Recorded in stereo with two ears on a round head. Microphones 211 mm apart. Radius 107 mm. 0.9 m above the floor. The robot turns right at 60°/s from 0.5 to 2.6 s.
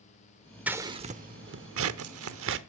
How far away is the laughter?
No laughter in this recording.